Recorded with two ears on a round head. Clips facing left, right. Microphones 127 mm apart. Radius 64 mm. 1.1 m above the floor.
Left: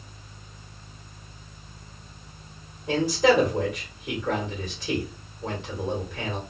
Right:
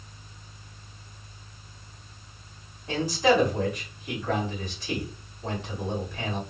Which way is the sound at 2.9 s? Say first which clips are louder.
Left 2 dB; 60° left (ahead or behind).